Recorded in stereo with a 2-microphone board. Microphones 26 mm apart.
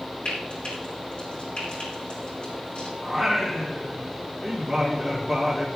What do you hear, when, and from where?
0.2 s frying: 45° left (ahead or behind), 7 m
3.0 s singing: centre (ahead or behind), 3.5 m